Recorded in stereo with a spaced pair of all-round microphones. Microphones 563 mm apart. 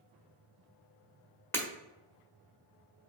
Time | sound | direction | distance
1.5 | breaking glass | 5° left (ahead or behind) | 1.5 m